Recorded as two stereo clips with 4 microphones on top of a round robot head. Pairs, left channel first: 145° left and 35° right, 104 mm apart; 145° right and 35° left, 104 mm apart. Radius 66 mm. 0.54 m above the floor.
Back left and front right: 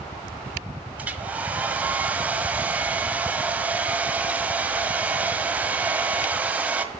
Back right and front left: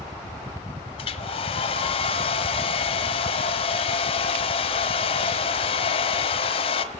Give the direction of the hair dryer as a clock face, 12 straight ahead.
4 o'clock.